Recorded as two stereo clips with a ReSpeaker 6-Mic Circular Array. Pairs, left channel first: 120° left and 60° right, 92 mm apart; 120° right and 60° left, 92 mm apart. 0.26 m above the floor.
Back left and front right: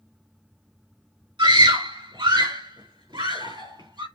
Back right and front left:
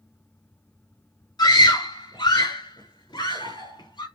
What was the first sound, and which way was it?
A scream, 80° right.